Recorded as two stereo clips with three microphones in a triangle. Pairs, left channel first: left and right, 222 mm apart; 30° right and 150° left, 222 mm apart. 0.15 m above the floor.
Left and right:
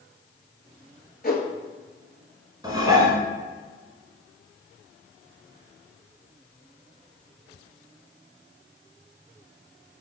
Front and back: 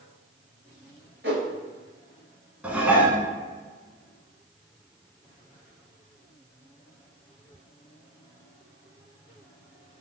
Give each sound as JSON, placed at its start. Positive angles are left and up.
{"t": 1.2, "sound": "a whoosh", "azimuth_deg": 130, "distance_m": 0.8}
{"t": 2.6, "sound": "dishes clattering", "azimuth_deg": -135, "distance_m": 0.7}